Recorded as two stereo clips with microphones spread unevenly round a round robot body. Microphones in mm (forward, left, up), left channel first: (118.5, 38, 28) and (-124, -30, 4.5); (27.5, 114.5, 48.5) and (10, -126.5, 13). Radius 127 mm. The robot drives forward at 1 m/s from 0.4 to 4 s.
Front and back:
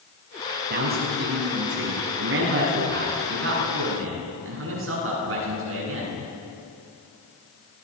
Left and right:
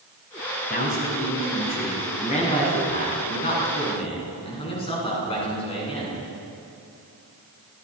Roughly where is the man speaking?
Behind left.